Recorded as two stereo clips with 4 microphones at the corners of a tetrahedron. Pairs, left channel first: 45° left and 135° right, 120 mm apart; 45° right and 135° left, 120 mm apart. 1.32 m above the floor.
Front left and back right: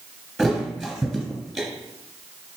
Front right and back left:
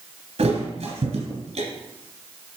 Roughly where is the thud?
Behind left.